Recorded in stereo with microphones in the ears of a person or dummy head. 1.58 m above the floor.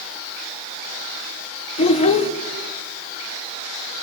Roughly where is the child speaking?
Left.